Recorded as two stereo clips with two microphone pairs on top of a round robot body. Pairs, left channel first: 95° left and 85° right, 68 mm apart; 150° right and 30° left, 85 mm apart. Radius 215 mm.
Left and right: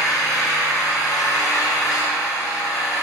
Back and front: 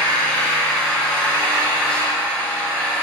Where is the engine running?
130° left, 4 m.